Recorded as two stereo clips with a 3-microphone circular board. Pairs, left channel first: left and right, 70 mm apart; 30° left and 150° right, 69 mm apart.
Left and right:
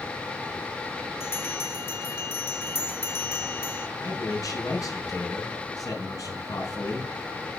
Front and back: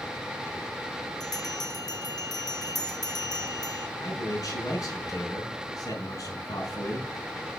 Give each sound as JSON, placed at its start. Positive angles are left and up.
{"t": 1.2, "sound": "a bell", "azimuth_deg": 40, "distance_m": 1.6}
{"t": 4.0, "sound": "a man speaking", "azimuth_deg": 60, "distance_m": 4.5}